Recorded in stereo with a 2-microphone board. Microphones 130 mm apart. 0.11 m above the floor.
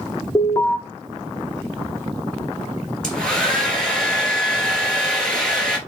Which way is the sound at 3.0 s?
5° left (ahead or behind).